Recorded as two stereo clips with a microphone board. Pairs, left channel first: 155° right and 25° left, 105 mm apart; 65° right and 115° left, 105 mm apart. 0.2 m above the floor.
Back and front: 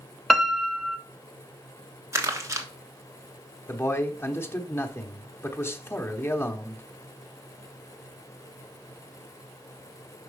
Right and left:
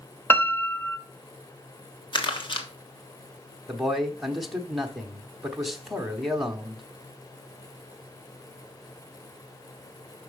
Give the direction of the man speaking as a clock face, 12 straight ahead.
5 o'clock.